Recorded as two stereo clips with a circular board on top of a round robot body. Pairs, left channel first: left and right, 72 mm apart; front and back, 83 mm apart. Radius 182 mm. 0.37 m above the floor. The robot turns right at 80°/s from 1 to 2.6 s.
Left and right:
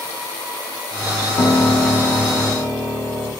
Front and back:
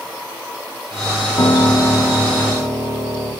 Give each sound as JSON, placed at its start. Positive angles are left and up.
{"t": 1.4, "sound": "a piano", "azimuth_deg": 55, "distance_m": 4.5}